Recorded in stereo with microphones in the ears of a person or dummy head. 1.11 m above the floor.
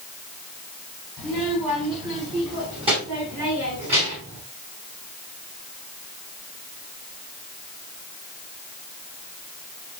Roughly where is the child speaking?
Right.